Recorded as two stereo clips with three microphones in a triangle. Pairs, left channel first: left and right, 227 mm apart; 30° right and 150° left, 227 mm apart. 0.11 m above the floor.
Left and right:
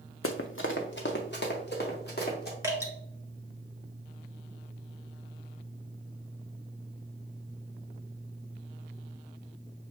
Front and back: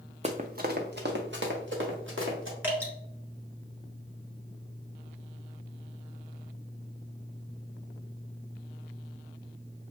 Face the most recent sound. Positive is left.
turn(degrees=-145)